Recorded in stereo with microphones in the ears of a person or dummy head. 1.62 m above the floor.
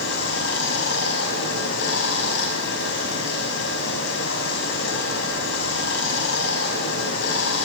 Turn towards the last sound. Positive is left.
turn(degrees=65)  # may be behind; listen again after turning